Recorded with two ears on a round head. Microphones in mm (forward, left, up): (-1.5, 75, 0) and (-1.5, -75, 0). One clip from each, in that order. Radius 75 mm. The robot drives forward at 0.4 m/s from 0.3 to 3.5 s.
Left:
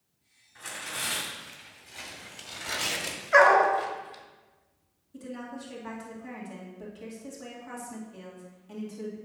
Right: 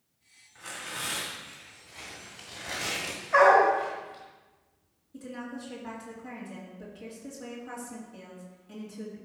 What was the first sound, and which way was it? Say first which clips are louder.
Tearing paper: left 2 dB; 30° left (ahead or behind).